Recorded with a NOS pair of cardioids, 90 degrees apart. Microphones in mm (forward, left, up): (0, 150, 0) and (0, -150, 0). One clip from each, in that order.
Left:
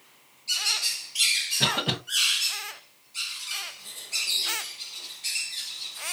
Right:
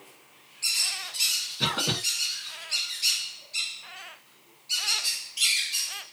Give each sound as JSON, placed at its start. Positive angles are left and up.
{"t": 1.6, "sound": "a cough", "azimuth_deg": 25, "distance_m": 1.2}